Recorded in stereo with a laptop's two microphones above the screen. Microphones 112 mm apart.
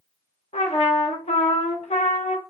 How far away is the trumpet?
About 0.7 m.